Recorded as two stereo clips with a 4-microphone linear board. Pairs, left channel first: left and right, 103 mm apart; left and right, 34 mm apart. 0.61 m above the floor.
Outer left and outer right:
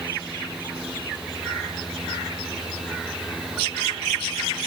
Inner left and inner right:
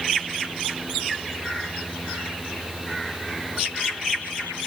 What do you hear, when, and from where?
Only background noise.